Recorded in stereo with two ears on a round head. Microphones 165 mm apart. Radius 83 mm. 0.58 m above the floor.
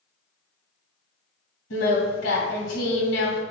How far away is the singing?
About 2 m.